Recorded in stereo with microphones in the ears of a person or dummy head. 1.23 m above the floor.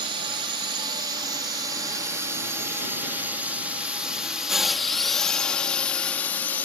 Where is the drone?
25° right (ahead or behind); by 6.7 s 10° left (ahead or behind).